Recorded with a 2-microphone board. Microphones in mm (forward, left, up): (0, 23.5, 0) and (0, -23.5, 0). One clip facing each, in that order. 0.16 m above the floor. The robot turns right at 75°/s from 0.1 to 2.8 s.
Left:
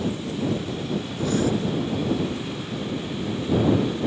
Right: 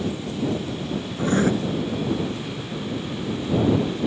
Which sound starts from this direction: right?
Writing, at 1.2 s.